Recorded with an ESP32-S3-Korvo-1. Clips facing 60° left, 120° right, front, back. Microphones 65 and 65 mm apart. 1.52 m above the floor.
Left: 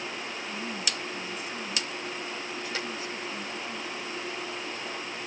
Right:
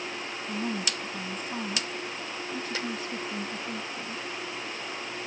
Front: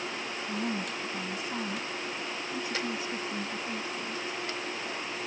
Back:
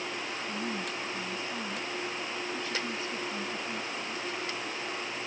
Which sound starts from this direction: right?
A woman speaking, at 0.5 s.